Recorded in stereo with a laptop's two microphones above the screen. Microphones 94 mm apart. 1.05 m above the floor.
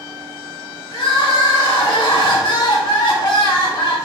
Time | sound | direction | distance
0.9 | crying | 55° left (ahead or behind) | 2 m